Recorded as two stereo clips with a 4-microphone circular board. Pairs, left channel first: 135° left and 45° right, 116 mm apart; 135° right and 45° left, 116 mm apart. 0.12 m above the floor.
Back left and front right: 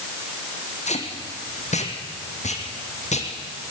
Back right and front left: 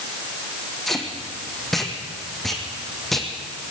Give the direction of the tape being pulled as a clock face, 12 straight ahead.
7 o'clock.